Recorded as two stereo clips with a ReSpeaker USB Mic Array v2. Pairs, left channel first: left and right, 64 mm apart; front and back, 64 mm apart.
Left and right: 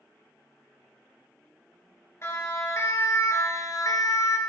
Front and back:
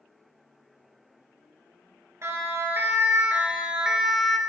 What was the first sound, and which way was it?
A siren, 135° left.